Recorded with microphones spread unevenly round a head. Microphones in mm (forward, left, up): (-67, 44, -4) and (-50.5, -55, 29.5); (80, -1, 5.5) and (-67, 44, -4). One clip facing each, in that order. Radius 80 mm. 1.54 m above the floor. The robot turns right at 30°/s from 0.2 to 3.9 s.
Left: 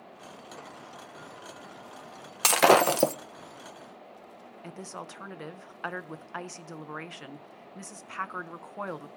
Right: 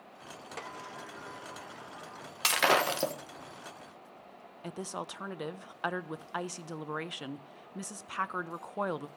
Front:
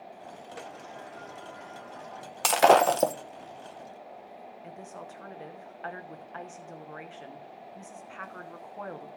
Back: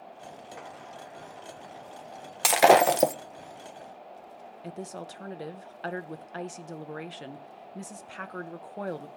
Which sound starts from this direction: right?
A sliding door, at 0.6 s.